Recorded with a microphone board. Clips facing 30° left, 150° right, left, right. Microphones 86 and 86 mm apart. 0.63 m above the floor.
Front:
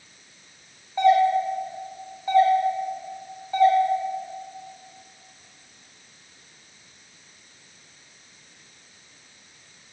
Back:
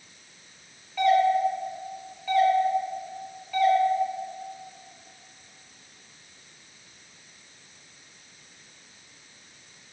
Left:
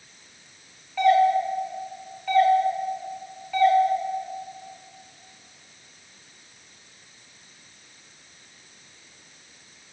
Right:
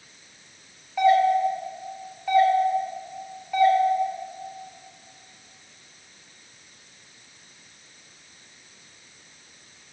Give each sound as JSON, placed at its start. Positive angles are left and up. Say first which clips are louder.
{"t": 1.0, "sound": "a doorbell", "louder": "front 2 dB, even", "azimuth_deg": -20, "distance_m": 1.3}